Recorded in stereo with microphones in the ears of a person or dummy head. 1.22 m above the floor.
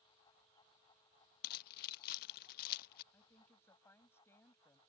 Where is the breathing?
I don't hear breathing.